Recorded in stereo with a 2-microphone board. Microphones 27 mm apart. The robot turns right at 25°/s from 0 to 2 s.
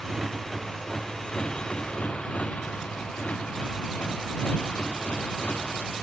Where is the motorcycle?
20° right (ahead or behind); by 6.0 s 60° left (ahead or behind).